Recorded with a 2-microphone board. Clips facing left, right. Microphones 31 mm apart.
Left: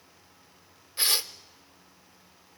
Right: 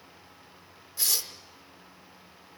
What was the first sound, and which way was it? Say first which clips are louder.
Tearing paper: left 4 dB; 40° left (ahead or behind).